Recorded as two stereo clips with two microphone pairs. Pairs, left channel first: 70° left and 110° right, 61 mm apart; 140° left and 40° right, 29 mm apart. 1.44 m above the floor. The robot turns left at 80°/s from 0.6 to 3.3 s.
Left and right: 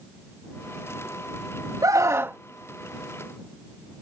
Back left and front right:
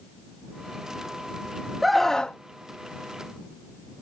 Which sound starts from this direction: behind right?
A scream, at 1.8 s.